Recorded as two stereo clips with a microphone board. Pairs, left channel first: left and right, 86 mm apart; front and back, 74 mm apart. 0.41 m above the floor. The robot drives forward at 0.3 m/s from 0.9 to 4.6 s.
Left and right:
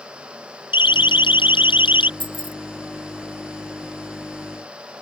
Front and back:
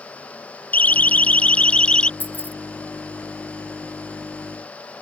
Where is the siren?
70° left; by 2.1 s 75° left.